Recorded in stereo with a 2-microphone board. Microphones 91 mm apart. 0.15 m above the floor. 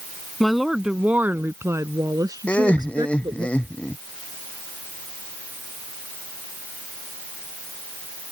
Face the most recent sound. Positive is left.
turn(degrees=15)  # may be behind; listen again after turning